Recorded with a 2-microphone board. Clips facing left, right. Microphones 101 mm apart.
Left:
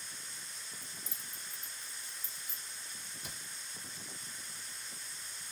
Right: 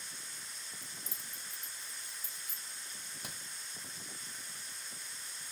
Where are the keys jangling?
55° right (ahead or behind), 1.3 m; by 2.6 s 70° right (ahead or behind), 1.8 m.